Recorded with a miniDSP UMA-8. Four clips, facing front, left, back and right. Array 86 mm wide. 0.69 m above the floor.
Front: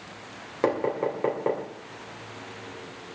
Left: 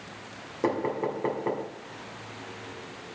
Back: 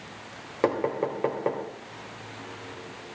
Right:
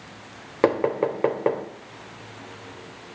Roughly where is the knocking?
Right.